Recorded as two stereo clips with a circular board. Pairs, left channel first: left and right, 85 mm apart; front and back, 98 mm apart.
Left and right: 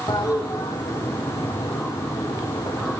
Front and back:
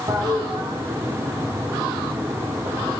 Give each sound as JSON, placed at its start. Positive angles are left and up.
{"t": 0.1, "sound": "a toilet flushing", "azimuth_deg": 130, "distance_m": 5.5}